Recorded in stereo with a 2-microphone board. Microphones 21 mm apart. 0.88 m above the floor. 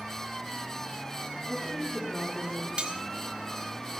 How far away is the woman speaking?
About 9.5 m.